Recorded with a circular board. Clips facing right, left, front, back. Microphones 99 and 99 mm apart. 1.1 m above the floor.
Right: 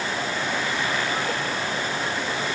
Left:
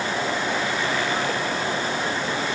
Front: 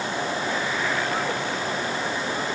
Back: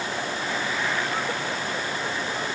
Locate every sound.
Only background noise.